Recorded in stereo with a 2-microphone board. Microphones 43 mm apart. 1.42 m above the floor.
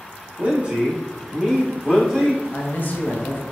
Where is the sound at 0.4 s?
35° right (ahead or behind), 0.8 m; by 2.4 s centre (ahead or behind), 1.7 m.